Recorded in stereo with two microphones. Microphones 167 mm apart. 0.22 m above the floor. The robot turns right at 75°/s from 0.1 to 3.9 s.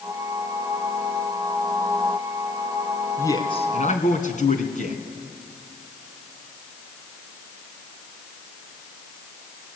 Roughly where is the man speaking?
Ahead.